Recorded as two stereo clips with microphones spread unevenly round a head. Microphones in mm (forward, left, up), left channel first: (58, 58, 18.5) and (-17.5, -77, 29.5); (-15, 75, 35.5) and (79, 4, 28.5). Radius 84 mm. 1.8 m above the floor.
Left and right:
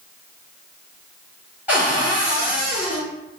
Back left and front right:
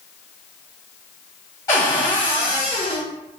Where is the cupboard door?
Straight behind, 1.0 m.